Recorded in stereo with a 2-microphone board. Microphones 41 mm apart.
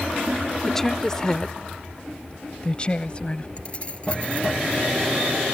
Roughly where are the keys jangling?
Left.